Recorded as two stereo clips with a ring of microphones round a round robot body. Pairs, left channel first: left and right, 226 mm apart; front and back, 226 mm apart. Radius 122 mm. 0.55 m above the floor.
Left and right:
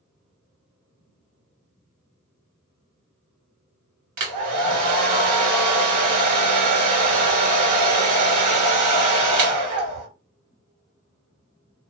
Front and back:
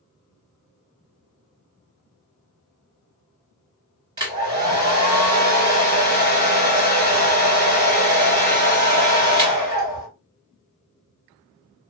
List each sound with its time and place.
4.2 s a hair dryer: 105° right, 1.8 m